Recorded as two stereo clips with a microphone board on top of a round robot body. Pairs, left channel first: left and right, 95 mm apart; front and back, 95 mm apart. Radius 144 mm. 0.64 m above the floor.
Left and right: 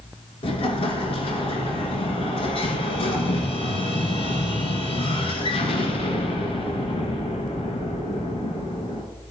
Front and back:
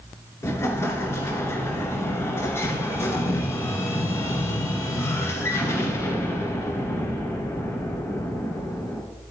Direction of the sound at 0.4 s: 65° left.